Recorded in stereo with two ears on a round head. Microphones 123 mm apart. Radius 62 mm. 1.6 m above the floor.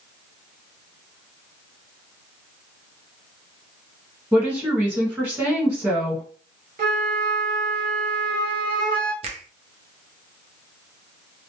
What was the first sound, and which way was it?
A woman speaking, 15° right (ahead or behind).